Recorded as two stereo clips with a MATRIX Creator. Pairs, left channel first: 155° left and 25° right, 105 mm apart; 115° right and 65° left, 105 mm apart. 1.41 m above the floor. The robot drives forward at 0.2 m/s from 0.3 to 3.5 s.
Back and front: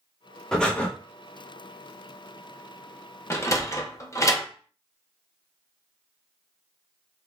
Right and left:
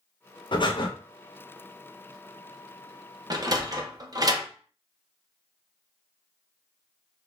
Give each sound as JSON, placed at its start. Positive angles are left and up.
{"t": 0.5, "sound": "breathing", "azimuth_deg": -120, "distance_m": 0.7}
{"t": 3.3, "sound": "a sliding door", "azimuth_deg": 100, "distance_m": 0.7}